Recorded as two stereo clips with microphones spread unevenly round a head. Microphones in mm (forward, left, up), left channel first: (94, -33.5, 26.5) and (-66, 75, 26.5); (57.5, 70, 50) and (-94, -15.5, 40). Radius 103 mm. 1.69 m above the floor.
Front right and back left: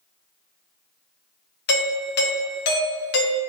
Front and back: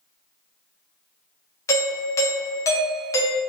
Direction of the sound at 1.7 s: 45° right.